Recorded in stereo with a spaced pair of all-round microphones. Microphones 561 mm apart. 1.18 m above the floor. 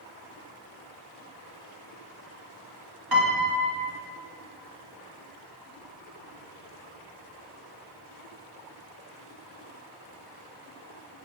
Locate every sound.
3.1 s a piano: 40° right (ahead or behind), 1.5 m